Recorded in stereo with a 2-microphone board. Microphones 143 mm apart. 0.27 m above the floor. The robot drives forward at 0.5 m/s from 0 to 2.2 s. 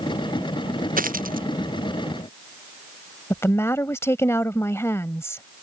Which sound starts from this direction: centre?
A woman speaking, at 3.3 s.